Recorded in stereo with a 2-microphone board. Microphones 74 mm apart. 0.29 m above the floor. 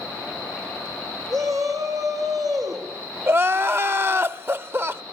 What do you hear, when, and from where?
1.3 s a shout: 50° right (ahead or behind), 5 m; by 4.3 s 70° right (ahead or behind), 3.5 m
3.3 s crying: 30° right (ahead or behind), 0.6 m